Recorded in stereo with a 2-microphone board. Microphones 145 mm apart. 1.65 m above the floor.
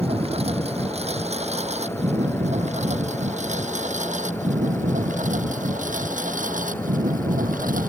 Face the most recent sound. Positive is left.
turn(degrees=-65)  # may be behind; listen again after turning